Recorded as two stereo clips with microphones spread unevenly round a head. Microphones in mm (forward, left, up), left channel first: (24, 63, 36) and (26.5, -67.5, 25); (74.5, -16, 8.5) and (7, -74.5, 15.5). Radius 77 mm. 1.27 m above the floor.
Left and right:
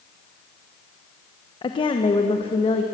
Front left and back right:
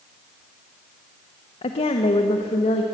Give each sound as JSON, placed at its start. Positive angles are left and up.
{"t": 1.6, "sound": "a woman speaking", "azimuth_deg": 35, "distance_m": 1.3}